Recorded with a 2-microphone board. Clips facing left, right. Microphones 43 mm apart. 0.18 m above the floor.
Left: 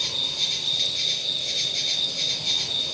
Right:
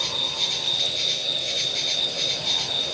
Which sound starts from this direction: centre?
An insect, at 0.0 s.